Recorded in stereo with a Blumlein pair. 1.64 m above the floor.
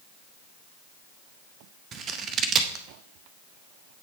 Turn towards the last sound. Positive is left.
turn(degrees=-30)